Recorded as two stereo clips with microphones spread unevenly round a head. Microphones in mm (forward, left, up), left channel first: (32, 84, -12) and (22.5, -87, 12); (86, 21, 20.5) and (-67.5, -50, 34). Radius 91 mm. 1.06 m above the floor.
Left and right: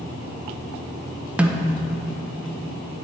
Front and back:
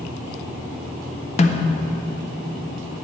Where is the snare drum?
5° right, 0.6 m.